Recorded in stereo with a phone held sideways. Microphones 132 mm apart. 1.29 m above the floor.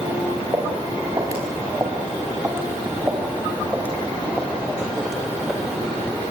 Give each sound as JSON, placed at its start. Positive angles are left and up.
{"t": 0.5, "sound": "footsteps", "side_deg": -25, "distance_m": 6.0}